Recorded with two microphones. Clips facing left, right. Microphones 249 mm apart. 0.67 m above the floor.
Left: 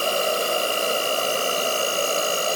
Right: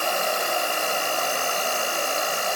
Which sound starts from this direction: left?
An insect, at 0.0 s.